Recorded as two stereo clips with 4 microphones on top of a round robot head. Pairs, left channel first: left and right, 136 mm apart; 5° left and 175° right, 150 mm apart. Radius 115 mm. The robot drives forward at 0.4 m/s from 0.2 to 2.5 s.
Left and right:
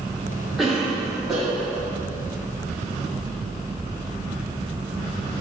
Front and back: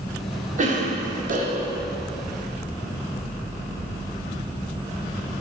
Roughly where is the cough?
Behind.